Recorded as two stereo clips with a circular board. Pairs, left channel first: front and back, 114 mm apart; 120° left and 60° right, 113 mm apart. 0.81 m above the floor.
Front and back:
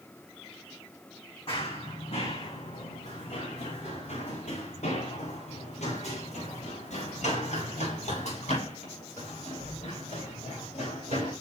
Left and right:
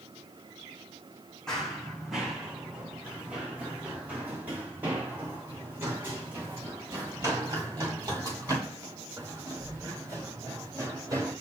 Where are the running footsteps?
35° left, 3 m; by 11.3 s 5° left, 13.5 m.